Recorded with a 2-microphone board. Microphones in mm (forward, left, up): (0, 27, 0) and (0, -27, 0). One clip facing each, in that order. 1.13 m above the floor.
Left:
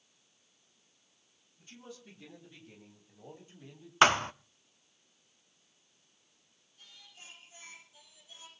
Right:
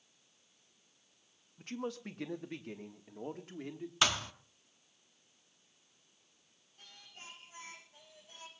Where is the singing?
45° right (ahead or behind), 9.5 m.